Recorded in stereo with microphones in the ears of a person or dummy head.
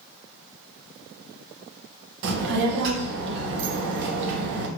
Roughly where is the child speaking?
Right.